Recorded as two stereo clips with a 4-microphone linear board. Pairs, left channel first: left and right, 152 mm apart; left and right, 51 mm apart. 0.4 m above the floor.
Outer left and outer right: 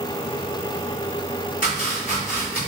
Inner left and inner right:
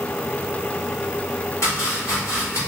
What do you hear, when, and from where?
1.6 s chopping: 65° left (ahead or behind), 1.7 m